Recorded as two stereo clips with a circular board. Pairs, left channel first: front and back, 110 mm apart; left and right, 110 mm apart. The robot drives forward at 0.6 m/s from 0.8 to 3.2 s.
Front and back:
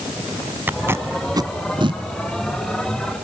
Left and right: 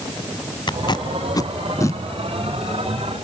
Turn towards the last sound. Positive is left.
turn(degrees=160)